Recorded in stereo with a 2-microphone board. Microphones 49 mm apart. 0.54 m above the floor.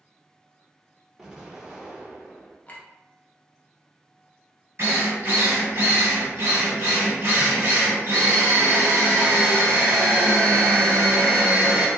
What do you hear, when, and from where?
1.2 s an explosion: 15° right (ahead or behind), 0.7 m
2.7 s a clink: 30° left (ahead or behind), 0.6 m
4.8 s a drill: 55° right (ahead or behind), 0.9 m